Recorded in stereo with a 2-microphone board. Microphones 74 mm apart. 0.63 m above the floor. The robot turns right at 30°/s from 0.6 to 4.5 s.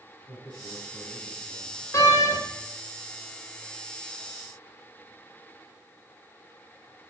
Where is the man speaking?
90° left, 5 m; by 1.8 s 125° left, 5 m.